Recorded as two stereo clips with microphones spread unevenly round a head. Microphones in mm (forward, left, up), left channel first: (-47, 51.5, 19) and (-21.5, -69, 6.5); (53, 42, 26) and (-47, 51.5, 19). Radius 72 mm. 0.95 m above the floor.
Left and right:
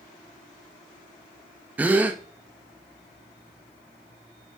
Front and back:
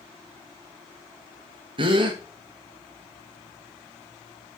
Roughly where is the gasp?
Behind right.